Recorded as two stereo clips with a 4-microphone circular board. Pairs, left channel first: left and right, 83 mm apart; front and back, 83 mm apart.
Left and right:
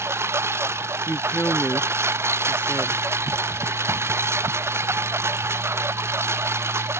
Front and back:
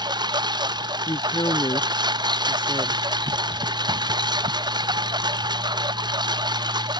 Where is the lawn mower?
150° right.